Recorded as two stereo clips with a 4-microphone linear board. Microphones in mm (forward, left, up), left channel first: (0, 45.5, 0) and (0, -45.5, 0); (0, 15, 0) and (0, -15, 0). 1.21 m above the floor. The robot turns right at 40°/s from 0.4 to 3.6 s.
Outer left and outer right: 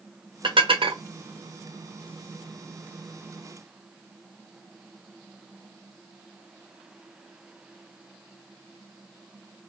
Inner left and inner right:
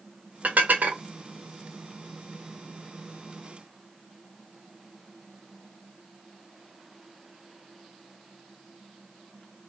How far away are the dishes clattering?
About 1.1 m.